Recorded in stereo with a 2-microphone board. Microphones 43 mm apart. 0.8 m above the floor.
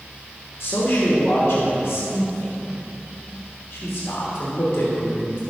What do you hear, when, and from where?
0.6 s a man speaking: 65° left (ahead or behind), 3 m